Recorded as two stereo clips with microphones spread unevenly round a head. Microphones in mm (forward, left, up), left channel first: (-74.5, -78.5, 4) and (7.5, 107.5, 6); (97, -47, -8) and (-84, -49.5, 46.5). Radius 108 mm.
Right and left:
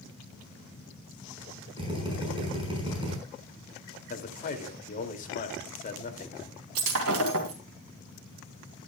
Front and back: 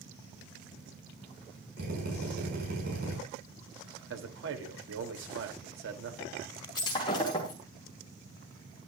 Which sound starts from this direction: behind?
A man speaking, at 4.1 s.